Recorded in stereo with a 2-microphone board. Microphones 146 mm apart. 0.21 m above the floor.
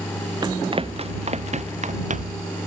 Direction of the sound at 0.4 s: 30° right (ahead or behind).